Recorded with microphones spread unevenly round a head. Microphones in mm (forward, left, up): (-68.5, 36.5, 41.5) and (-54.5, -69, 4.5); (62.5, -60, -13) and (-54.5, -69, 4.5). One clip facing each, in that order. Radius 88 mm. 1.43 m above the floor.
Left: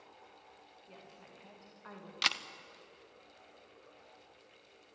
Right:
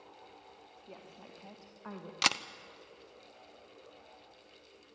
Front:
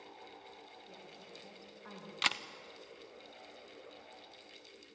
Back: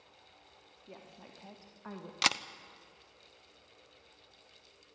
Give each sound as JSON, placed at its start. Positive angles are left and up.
{"t": 0.9, "sound": "a woman speaking", "azimuth_deg": -135, "distance_m": 3.0}
{"t": 2.2, "sound": "a camera shutter", "azimuth_deg": -120, "distance_m": 0.7}